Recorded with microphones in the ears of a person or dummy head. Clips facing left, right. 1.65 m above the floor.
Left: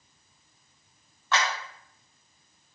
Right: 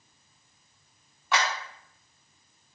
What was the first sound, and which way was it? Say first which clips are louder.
A clap: even; 15° right (ahead or behind).